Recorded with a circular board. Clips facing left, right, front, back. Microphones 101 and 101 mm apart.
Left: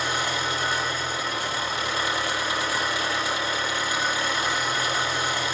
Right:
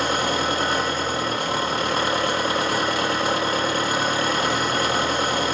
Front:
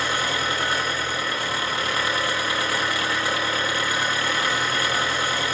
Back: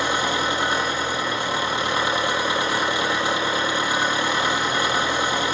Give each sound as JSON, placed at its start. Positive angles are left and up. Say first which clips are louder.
{"t": 0.0, "sound": "an engine running", "louder": "right 5 dB, back 3 dB", "azimuth_deg": -115, "distance_m": 3.5}